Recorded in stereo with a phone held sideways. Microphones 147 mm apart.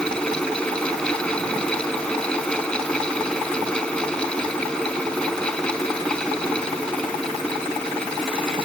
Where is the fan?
5° left (ahead or behind).